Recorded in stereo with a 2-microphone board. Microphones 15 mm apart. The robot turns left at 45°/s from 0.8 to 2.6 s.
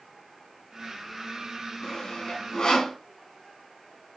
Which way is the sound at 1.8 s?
65° left (ahead or behind).